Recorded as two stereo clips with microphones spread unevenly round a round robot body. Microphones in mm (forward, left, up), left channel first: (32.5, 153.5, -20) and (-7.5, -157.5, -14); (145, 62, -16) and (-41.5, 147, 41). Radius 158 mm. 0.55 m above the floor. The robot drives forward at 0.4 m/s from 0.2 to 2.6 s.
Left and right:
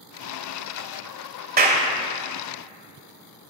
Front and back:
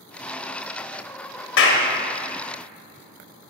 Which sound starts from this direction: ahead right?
A clap, at 1.6 s.